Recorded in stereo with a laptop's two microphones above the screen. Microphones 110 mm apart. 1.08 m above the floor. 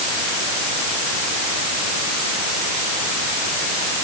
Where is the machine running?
No machine running in this recording.